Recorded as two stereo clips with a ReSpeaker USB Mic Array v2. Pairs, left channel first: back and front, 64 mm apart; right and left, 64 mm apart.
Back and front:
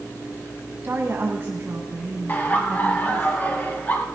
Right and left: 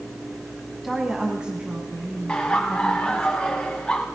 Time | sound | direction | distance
0.8 | a woman speaking | 5° left | 1.5 m
2.3 | laughter | 155° right | 1.8 m